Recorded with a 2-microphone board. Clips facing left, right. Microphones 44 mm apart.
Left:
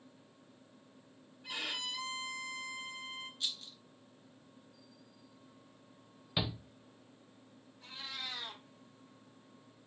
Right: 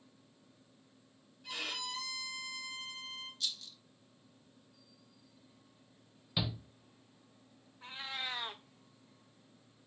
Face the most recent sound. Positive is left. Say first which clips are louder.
# right 3 dB
turn(degrees=-30)  # may be behind; listen again after turning